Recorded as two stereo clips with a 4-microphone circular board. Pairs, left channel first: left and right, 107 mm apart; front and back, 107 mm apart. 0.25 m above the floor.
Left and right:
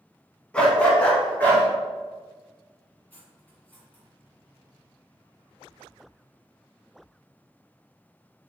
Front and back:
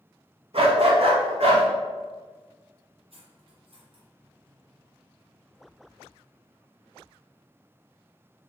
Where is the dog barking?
170° left, 0.8 m; by 1.6 s 165° left, 1.5 m.